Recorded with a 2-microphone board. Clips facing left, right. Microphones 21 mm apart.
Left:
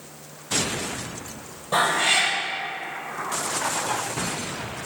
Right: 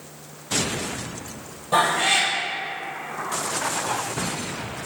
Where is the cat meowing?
Centre (ahead or behind), 1.8 m.